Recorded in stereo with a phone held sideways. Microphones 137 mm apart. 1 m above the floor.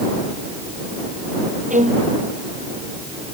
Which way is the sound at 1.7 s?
65° right (ahead or behind).